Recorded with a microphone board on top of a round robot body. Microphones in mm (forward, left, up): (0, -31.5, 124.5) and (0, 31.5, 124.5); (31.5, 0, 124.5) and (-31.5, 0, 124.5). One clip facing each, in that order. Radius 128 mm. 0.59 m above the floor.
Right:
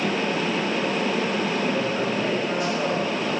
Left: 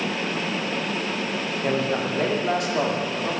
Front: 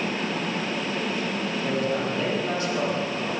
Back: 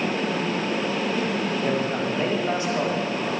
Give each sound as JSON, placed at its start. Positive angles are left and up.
{"t": 1.6, "sound": "a man speaking", "azimuth_deg": 120, "distance_m": 2.5}